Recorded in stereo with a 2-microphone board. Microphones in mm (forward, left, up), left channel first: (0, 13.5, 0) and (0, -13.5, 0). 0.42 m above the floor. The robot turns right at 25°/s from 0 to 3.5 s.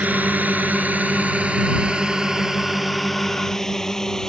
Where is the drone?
70° right (ahead or behind); by 4.3 s 20° left (ahead or behind).